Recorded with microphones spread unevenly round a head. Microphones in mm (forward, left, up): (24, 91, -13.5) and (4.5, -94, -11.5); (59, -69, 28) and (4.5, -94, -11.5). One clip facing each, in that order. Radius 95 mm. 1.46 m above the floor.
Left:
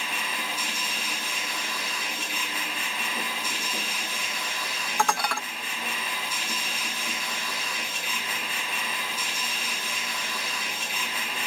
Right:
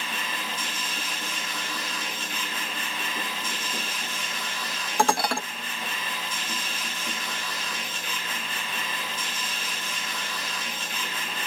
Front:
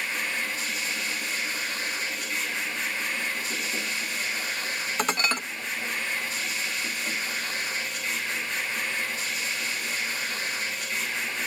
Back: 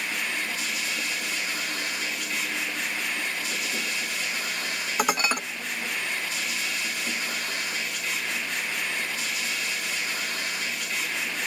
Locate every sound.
0.0 s a machine running: 165° left, 4 m
5.0 s dishes clattering: 50° right, 0.9 m